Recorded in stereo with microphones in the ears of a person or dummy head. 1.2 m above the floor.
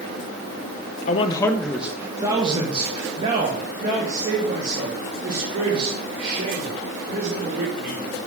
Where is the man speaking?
40° left (ahead or behind), 0.5 m; by 8.0 s 50° right (ahead or behind), 4.5 m.